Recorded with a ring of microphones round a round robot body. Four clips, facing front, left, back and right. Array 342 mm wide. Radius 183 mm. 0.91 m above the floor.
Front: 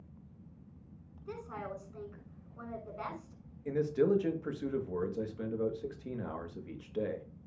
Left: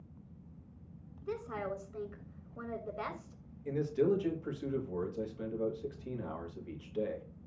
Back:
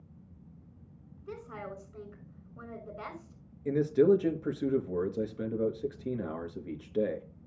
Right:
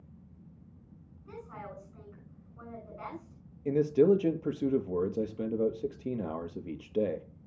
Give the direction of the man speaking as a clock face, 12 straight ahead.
4 o'clock.